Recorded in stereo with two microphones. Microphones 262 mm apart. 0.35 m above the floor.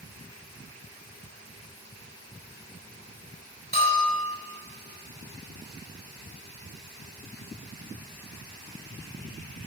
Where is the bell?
35° left (ahead or behind), 1.9 m.